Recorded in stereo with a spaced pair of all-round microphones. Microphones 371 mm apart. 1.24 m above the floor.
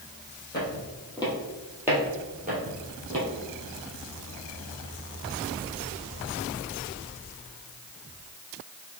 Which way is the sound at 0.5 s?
25° left (ahead or behind).